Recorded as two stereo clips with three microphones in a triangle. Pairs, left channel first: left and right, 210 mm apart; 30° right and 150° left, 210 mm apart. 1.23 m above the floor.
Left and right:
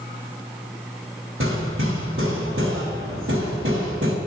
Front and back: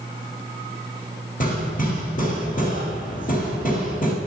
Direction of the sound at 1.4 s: 80° right.